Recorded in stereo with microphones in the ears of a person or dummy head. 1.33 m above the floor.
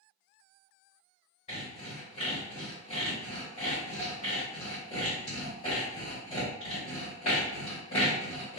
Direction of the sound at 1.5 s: 40° left (ahead or behind).